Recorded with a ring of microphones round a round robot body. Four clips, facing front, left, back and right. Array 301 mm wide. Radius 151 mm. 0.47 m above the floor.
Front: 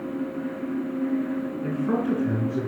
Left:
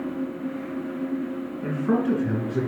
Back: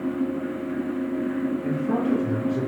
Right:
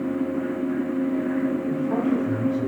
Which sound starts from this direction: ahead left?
A man speaking, at 1.6 s.